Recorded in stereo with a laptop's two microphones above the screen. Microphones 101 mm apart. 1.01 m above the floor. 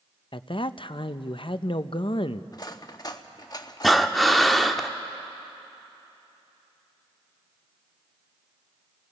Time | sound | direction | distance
0.3 | a man speaking | 55° left (ahead or behind) | 0.6 m
2.5 | cutlery clinking | 40° left (ahead or behind) | 0.6 m
3.8 | breathing | centre (ahead or behind) | 0.9 m